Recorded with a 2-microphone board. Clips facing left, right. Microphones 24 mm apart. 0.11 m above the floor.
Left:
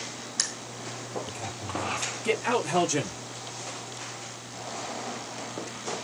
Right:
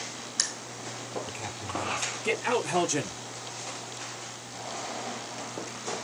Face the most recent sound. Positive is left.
turn(degrees=10)  # may be behind; listen again after turning